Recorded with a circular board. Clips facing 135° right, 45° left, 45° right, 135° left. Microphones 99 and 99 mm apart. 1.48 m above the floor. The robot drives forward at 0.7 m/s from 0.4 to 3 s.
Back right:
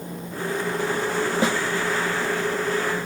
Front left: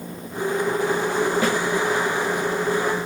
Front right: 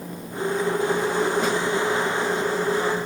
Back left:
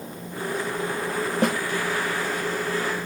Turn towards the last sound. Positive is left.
turn(degrees=165)